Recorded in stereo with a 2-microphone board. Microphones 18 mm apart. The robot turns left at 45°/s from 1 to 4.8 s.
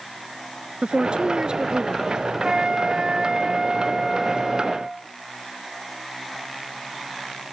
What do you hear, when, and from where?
0.8 s a woman speaking: 95° right; by 2.1 s 145° right
2.4 s a flute: 80° right; by 5.1 s 170° left